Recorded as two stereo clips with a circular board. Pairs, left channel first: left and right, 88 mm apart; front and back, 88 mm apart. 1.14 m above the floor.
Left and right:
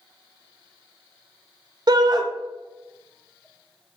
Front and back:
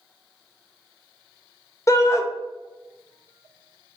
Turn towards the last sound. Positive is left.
turn(degrees=-55)